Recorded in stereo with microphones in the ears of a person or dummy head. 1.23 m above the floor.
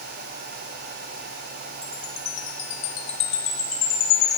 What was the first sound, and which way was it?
A chime, 40° left (ahead or behind).